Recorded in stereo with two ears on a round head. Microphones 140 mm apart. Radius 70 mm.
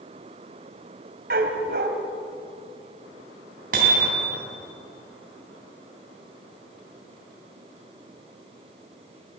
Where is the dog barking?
65° right (ahead or behind), 3 m.